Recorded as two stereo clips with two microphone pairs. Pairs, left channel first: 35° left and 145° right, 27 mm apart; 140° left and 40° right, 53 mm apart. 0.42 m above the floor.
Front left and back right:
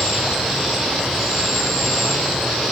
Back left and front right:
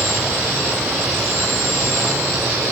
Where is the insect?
80° right, 7.5 m.